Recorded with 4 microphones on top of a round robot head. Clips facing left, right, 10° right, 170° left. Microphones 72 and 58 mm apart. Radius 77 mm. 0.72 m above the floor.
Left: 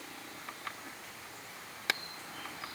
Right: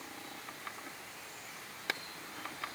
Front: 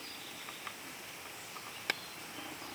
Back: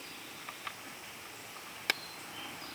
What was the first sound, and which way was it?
Only background noise.